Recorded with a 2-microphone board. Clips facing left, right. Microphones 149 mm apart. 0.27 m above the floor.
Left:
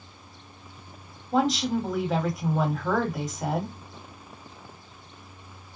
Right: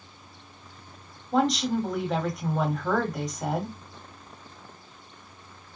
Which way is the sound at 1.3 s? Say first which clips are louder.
Even; centre (ahead or behind).